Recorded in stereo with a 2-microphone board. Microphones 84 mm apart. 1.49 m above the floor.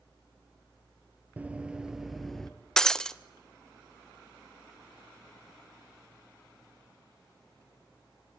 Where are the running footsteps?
20° right (ahead or behind), 1.7 m; by 2.5 s 5° left (ahead or behind), 1.6 m.